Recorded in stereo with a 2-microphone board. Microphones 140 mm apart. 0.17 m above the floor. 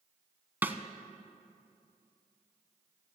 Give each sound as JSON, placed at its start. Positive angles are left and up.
{"t": 0.6, "sound": "a snare drum", "side_deg": -15, "distance_m": 0.7}